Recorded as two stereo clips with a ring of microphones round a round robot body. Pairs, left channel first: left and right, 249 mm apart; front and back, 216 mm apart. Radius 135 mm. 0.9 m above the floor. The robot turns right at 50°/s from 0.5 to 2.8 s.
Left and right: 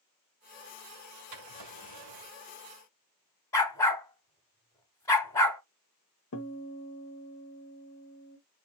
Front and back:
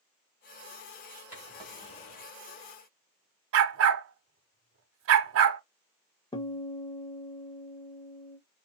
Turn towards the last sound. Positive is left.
turn(degrees=70)